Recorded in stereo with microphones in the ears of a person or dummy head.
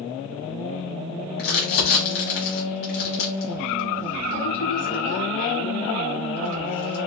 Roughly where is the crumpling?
Left.